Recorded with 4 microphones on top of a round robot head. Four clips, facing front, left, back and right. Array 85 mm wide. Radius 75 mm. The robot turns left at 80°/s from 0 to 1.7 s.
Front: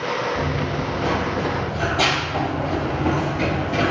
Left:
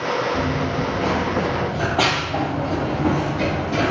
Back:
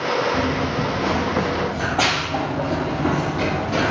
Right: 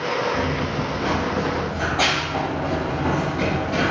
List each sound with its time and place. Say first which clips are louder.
0.3 s running footsteps: left 1 dB, back 2 dB; 175° right, 1.3 m; by 3.9 s 160° left, 1.7 m